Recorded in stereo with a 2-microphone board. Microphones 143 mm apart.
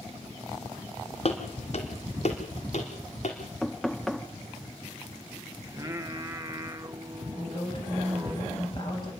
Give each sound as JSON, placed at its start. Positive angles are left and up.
{"t": 1.2, "sound": "footsteps", "side_deg": 55, "distance_m": 2.5}
{"t": 3.6, "sound": "knocking", "side_deg": 0, "distance_m": 0.6}
{"t": 5.7, "sound": "singing", "side_deg": -25, "distance_m": 0.9}
{"t": 7.3, "sound": "a woman speaking", "side_deg": 35, "distance_m": 9.0}